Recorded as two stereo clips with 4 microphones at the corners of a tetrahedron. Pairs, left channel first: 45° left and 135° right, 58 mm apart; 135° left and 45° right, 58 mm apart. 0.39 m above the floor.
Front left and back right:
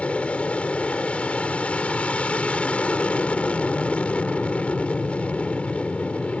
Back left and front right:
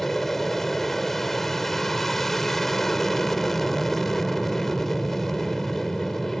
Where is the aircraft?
60° left.